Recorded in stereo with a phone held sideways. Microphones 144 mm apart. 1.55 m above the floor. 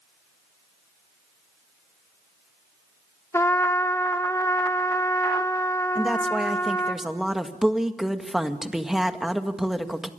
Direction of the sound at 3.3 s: 20° left (ahead or behind).